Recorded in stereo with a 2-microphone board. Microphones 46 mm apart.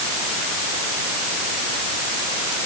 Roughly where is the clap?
No clap in this recording.